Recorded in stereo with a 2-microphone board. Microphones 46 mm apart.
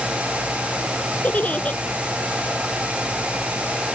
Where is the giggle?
30° left (ahead or behind).